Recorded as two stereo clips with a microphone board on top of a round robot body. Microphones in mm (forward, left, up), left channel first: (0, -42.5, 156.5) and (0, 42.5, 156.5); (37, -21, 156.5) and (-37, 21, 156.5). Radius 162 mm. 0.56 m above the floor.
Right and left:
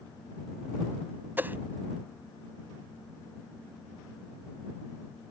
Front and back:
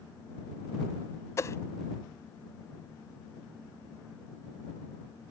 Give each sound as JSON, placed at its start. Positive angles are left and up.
{"t": 1.4, "sound": "a whoosh", "azimuth_deg": 25}